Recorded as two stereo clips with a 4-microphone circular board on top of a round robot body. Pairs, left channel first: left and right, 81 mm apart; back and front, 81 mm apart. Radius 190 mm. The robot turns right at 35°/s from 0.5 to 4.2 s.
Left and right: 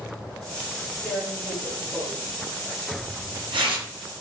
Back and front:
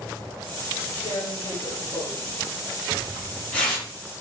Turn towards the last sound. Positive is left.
turn(degrees=-80)